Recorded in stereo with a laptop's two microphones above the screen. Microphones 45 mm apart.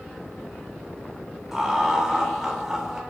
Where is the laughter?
10° right (ahead or behind), 0.7 m.